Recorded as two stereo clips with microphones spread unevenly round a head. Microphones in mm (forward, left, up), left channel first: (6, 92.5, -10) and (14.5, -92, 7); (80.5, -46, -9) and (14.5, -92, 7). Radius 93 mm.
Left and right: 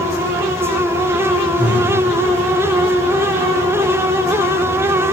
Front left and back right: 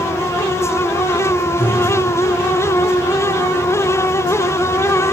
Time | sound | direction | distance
1.6 | breathing | straight ahead | 0.9 m